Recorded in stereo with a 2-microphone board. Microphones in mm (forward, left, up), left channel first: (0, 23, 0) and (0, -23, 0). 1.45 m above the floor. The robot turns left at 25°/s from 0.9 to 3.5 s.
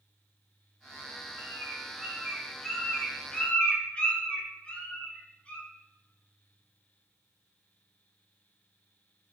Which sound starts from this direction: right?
A bird, at 1.4 s.